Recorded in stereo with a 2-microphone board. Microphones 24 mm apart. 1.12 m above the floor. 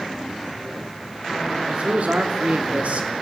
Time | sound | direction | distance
1.7 | a man speaking | 80° right | 3.5 m